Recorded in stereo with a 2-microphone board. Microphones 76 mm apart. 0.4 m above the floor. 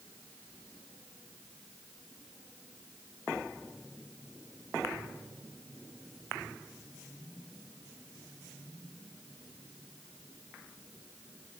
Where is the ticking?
I don't hear ticking.